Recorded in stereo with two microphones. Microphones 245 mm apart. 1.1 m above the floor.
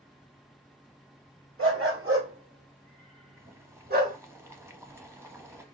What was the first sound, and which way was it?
A dog barking, 55° right (ahead or behind).